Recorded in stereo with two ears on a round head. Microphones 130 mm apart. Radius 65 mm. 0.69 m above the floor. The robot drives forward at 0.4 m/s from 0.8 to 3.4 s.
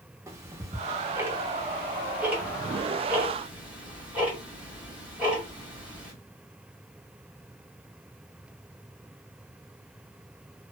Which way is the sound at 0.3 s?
20° right (ahead or behind).